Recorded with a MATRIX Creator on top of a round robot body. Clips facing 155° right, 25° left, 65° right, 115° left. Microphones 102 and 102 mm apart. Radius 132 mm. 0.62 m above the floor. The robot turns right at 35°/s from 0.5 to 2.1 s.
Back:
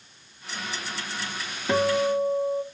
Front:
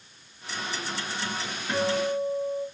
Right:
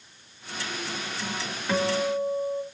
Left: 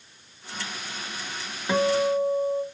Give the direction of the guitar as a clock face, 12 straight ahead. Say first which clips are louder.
Back 4 dB, left 3 dB; 6 o'clock.